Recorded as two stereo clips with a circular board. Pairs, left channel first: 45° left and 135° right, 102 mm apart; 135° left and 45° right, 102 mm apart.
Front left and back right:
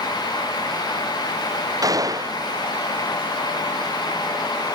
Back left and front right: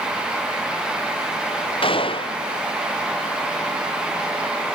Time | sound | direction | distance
1.8 | a gunshot | 170° left | ?